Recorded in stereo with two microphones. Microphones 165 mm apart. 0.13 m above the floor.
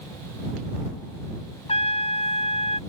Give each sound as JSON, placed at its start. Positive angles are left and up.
{"t": 1.7, "sound": "a trumpet", "side_deg": 40}